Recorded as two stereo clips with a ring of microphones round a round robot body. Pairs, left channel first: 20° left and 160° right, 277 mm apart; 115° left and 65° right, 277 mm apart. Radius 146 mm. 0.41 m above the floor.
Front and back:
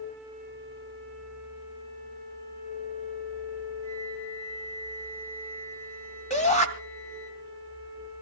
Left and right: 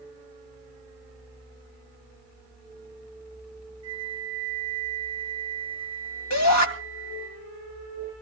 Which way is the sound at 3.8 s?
5° left.